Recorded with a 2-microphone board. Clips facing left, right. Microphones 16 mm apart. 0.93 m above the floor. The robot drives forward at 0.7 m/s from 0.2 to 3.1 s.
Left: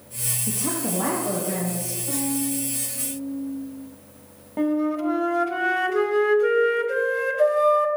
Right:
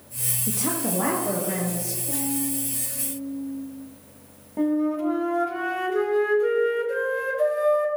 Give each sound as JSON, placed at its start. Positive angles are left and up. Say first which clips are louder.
{"t": 0.5, "sound": "a woman speaking", "louder": "right 1 dB", "side_deg": -20, "distance_m": 0.7}
{"t": 2.1, "sound": "a violin", "louder": "left 2 dB", "side_deg": 70, "distance_m": 2.0}
{"t": 4.6, "sound": "a flute", "louder": "even", "side_deg": 20, "distance_m": 0.8}